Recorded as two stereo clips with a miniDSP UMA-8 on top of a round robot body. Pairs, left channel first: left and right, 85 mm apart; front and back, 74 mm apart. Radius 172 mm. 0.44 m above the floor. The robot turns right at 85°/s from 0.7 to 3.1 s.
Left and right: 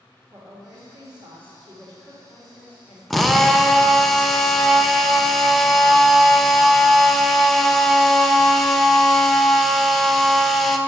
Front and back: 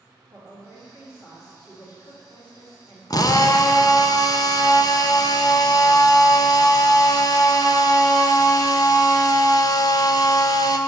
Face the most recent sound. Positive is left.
turn(degrees=5)